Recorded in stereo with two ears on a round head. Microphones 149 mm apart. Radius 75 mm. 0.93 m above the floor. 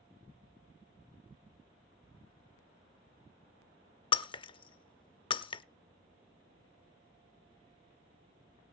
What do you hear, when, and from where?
4.1 s breaking glass: 30° left (ahead or behind), 0.6 m